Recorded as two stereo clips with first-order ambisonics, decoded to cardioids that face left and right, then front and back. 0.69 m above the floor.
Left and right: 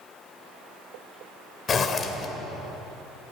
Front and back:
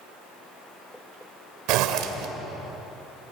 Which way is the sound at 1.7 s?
155° left.